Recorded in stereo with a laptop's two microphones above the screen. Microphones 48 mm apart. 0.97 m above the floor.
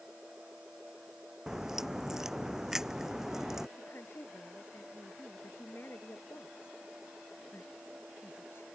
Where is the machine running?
25° right (ahead or behind).